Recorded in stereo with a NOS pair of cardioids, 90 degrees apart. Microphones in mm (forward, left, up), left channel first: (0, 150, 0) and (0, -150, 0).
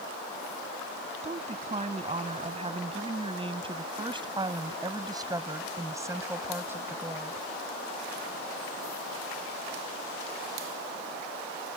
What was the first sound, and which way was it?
A woman speaking, 25° right.